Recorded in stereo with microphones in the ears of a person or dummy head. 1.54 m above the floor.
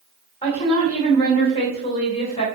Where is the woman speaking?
30° left (ahead or behind), 1.2 m.